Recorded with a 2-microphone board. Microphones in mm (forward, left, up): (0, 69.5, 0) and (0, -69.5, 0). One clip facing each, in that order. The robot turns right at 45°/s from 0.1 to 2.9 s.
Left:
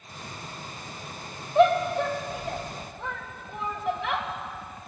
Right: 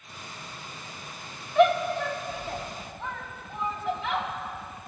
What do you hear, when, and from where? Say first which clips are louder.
1.6 s a shout: left 1 dB; 30° left (ahead or behind), 2.5 m; by 4.3 s 60° left (ahead or behind), 2.5 m